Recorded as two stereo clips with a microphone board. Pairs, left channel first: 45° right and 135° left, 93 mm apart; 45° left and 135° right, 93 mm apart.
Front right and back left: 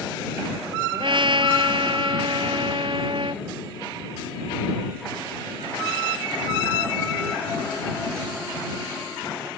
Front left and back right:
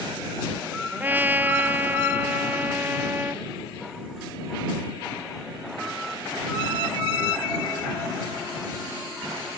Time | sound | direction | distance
0.9 | a trumpet | 155° left | ?